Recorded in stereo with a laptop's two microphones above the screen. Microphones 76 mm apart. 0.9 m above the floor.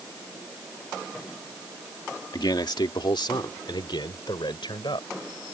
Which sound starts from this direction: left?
A man speaking, at 2.3 s.